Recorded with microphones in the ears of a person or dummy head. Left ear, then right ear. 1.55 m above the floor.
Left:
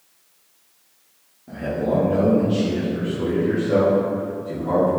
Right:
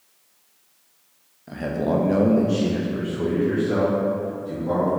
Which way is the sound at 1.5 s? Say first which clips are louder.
Left 1 dB; 60° right (ahead or behind).